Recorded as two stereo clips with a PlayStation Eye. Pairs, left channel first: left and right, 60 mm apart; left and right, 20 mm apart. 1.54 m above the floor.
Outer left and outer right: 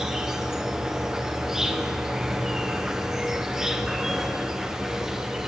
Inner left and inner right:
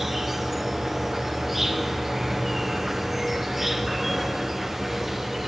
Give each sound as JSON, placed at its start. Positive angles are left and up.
{"t": 0.0, "sound": "an insect", "side_deg": -5, "distance_m": 0.8}